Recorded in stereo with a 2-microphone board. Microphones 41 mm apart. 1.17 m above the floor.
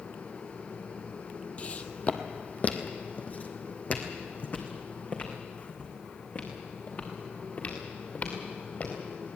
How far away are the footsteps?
About 1.5 m.